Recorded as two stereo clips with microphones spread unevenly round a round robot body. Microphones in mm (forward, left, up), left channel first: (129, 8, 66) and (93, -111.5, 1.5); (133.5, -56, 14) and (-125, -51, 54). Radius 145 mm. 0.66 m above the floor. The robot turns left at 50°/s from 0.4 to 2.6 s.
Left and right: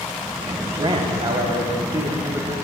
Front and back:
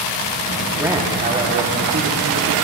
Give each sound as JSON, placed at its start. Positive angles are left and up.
{"t": 0.8, "sound": "a man speaking", "azimuth_deg": -90, "distance_m": 1.0}